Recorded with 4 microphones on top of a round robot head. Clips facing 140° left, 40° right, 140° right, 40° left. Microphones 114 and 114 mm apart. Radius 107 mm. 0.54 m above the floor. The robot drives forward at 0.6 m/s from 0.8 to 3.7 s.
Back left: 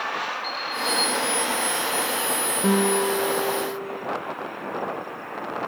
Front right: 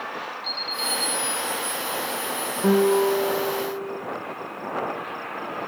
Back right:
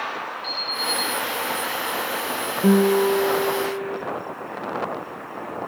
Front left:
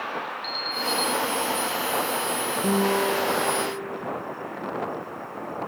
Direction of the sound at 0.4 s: 90° left.